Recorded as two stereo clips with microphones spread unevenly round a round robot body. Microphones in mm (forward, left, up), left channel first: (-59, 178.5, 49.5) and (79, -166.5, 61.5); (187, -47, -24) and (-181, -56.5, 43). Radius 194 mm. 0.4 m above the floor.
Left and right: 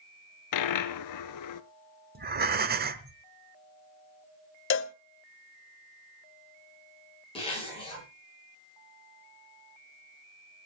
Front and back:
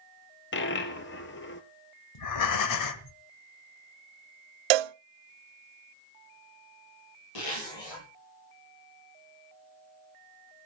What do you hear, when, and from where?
0.5 s a dropped coin: 70° left, 0.8 m
2.1 s breathing: 5° right, 1.2 m
4.7 s a cowbell: 170° left, 0.5 m
7.3 s a zipper: 35° left, 9 m